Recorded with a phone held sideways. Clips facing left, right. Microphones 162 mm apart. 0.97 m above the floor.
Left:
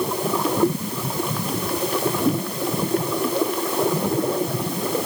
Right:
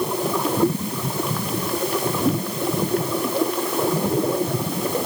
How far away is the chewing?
No chewing in this recording.